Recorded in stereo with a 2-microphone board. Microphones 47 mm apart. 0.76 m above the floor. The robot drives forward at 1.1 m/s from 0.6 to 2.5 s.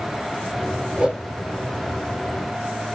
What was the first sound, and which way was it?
A whoosh, 15° right (ahead or behind).